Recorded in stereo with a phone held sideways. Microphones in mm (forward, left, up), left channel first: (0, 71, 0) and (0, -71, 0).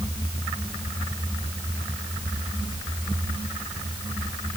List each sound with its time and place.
Only background noise.